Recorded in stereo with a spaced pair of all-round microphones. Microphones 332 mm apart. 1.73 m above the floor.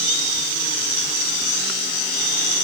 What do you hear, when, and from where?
Only background noise.